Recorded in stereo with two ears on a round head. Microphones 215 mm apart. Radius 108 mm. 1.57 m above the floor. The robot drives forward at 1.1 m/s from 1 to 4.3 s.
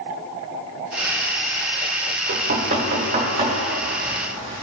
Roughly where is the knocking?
Right.